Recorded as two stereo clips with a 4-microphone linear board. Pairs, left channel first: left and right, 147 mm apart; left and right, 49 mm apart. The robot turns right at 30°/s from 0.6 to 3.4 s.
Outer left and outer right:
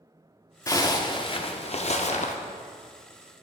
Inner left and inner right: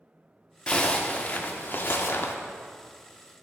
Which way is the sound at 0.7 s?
25° left.